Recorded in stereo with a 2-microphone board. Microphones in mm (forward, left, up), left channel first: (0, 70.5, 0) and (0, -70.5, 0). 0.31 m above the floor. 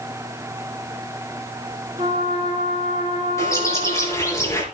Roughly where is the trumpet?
Right.